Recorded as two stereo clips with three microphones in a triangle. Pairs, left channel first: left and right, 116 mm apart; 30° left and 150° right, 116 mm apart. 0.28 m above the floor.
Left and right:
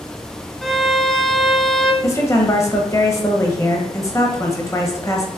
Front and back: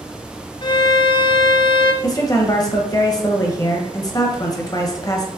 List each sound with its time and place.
0.6 s a violin: straight ahead, 0.5 m
2.0 s a woman speaking: 50° left, 1.0 m